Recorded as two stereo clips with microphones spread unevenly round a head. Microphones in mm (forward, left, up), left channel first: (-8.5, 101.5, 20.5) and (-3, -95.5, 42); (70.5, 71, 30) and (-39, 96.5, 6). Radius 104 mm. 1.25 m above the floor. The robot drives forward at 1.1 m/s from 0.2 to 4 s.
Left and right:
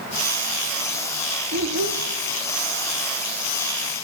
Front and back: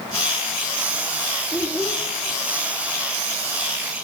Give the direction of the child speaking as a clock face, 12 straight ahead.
3 o'clock.